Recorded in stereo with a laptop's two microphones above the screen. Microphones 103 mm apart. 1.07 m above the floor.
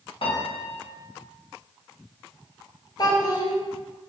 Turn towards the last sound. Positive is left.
turn(degrees=40)  # may be behind; listen again after turning